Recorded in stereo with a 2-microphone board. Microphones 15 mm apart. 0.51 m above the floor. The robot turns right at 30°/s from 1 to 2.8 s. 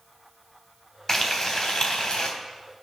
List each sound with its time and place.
1.1 s frying: 25° left, 3.5 m; by 2.3 s 60° left, 3.5 m